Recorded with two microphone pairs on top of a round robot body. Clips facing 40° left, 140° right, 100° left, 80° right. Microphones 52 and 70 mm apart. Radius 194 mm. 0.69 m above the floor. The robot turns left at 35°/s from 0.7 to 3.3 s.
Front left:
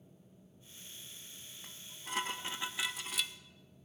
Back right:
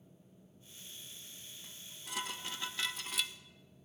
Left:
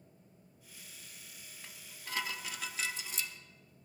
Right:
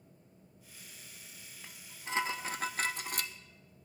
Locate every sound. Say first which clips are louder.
1.6 s dishes clattering: front left 5 dB, right 4 dB; straight ahead, 0.8 m; by 3.3 s 60° right, 0.8 m